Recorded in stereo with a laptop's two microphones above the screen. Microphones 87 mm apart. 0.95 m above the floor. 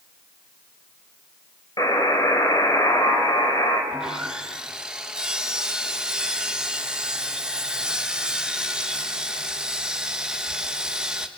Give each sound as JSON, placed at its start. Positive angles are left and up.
{"t": 1.8, "sound": "a buzzer", "side_deg": 45, "distance_m": 3.5}
{"t": 3.9, "sound": "sawing", "side_deg": -10, "distance_m": 1.3}